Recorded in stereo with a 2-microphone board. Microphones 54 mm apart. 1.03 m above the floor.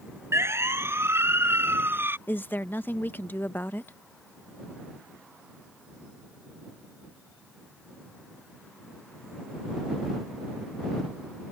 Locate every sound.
0.3 s a siren: 55° right (ahead or behind); by 2.2 s 45° right (ahead or behind)
2.3 s a woman speaking: 40° left (ahead or behind)